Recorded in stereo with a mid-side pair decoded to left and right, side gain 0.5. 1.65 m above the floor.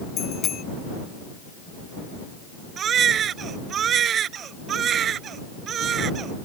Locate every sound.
0.2 s a bicycle bell: 55° left
2.8 s a baby crying: 55° right